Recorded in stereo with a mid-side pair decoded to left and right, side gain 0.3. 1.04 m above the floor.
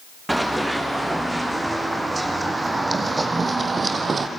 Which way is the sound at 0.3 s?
15° right.